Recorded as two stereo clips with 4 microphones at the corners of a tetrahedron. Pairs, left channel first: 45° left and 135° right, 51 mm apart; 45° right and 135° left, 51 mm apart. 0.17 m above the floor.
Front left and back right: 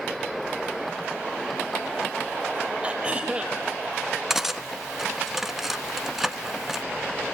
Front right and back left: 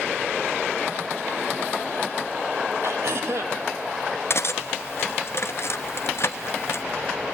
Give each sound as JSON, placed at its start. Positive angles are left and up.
{"t": 2.8, "sound": "throat clearing", "azimuth_deg": 155, "distance_m": 3.5}
{"t": 4.3, "sound": "cutlery clinking", "azimuth_deg": -50, "distance_m": 1.0}